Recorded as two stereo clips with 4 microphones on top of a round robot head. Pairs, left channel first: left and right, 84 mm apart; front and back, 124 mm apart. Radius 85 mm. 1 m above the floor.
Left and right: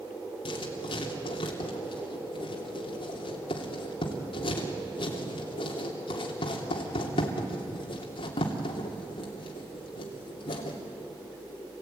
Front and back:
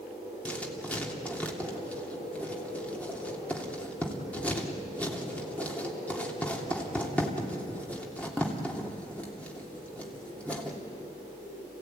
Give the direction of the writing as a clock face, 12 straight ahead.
9 o'clock.